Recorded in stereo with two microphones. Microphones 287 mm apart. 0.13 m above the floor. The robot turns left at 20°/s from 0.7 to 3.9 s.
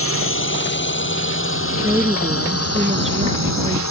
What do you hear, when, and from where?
0.0 s a drone: 50° left (ahead or behind); by 3.9 s 70° left (ahead or behind)
1.8 s a woman speaking: 10° right; by 3.8 s 50° right